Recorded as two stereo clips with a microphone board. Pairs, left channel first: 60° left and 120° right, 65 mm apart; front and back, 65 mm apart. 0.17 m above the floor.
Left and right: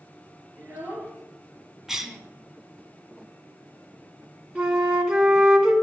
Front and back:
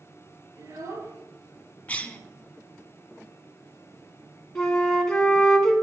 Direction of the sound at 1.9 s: 45° right.